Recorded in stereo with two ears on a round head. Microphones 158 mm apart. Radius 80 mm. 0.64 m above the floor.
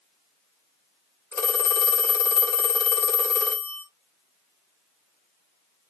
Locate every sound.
1.3 s a phone ringing: 15° left (ahead or behind), 1.2 m